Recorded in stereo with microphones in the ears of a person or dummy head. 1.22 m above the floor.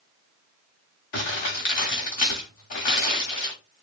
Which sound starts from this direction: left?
Crumpling, at 1.1 s.